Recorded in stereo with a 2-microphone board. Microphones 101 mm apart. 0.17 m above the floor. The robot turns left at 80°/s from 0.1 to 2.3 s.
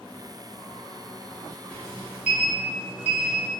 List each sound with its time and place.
1.7 s a sliding door: 20° left, 1.4 m; by 3.5 s 30° right, 1.4 m